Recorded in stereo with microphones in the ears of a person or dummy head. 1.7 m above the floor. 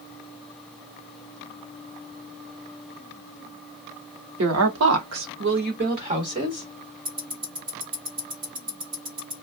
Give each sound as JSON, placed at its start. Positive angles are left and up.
{"t": 4.4, "sound": "a woman speaking", "side_deg": -75, "distance_m": 0.9}
{"t": 7.0, "sound": "ticking", "side_deg": -25, "distance_m": 0.7}